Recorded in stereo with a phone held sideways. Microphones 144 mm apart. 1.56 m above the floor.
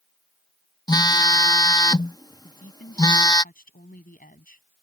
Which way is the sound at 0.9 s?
25° left (ahead or behind).